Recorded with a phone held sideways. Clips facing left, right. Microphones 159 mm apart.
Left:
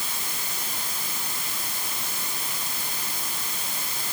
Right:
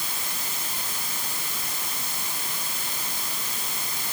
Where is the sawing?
I don't hear sawing.